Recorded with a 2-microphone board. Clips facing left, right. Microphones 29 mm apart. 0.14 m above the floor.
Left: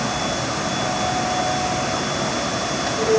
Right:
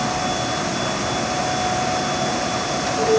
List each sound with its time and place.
Only background noise.